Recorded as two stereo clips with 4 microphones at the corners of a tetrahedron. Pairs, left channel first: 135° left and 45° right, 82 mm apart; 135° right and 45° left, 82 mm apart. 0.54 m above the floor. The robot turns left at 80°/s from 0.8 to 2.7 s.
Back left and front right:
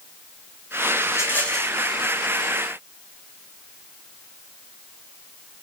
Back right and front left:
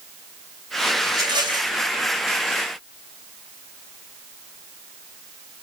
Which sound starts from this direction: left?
A rattle, at 1.1 s.